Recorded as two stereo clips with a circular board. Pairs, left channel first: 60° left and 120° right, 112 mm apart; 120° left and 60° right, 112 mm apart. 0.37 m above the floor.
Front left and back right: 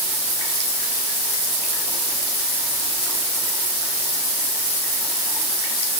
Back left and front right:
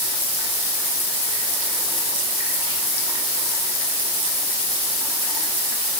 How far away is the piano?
No piano in this recording.